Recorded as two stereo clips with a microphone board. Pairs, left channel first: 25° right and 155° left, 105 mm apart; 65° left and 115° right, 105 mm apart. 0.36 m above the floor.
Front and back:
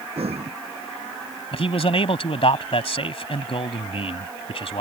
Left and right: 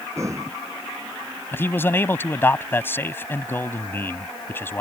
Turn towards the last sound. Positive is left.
turn(degrees=0)